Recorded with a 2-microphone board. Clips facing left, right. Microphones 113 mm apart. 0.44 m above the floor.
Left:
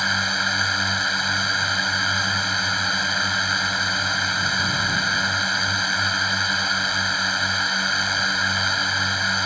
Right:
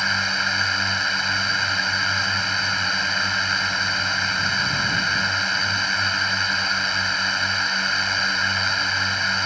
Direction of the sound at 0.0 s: 5° left (ahead or behind).